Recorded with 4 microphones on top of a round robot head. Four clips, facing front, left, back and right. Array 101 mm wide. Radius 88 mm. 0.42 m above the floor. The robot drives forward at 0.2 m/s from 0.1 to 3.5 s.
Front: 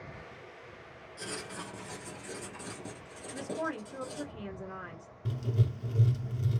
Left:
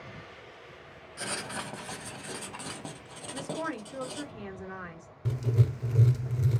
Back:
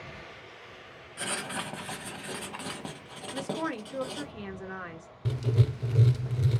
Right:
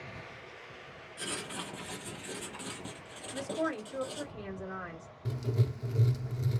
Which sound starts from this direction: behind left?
Writing, at 1.2 s.